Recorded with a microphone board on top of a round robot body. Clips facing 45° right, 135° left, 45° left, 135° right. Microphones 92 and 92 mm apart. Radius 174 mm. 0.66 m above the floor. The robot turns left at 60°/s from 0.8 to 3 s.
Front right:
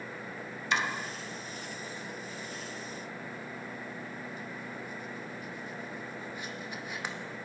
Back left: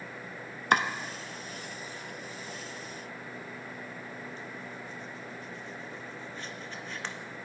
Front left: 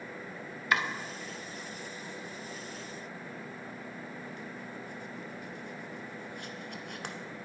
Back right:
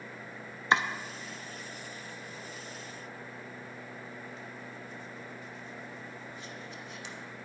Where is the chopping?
165° left, 1.1 m; by 7.2 s 35° left, 1.1 m.